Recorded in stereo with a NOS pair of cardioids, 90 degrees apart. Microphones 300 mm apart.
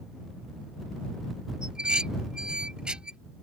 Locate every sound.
1.6 s dishes clattering: 5° right